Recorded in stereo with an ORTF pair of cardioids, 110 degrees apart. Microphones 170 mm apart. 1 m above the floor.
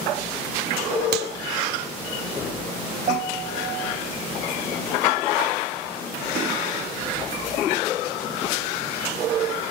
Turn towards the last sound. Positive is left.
turn(degrees=-45)